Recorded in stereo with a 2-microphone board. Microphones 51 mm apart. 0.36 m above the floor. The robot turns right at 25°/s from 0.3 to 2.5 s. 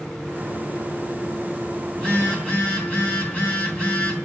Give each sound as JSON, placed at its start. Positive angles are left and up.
{"t": 1.9, "sound": "a phone buzzing", "side_deg": 15, "distance_m": 3.0}